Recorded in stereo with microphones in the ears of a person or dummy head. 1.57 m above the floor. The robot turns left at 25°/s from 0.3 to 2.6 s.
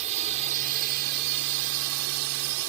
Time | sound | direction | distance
0.0 | a drone | 35° right | ?